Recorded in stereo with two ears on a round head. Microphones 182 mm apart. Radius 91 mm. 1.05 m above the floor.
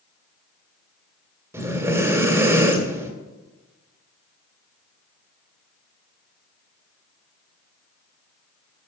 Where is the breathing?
10° right (ahead or behind), 1.9 m.